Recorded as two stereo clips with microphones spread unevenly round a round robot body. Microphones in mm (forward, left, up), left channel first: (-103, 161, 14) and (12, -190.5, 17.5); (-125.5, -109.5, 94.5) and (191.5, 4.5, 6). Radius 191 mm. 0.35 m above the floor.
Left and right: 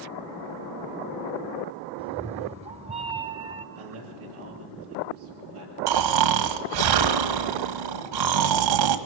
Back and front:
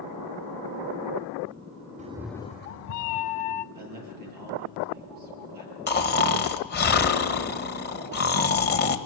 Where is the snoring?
90° right, 1.6 m.